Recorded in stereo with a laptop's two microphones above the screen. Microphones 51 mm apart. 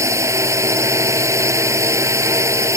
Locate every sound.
0.0 s a drone: 85° right